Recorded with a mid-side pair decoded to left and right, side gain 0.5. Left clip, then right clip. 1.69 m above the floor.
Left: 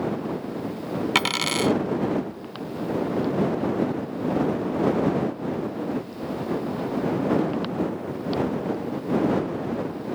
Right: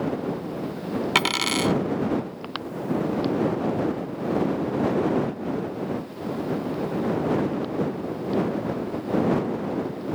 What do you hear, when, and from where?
1.1 s a dropped coin: 5° right